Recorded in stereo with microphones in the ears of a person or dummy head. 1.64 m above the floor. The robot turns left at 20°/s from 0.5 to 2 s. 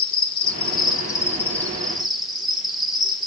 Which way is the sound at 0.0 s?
30° left.